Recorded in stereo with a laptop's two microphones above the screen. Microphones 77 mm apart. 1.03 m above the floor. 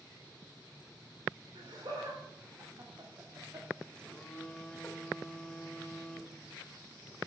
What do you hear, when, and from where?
1.6 s laughter: 70° right (ahead or behind), 3.5 m; by 5.0 s 5° left (ahead or behind), 1.9 m
4.0 s a phone buzzing: 10° left (ahead or behind), 1.3 m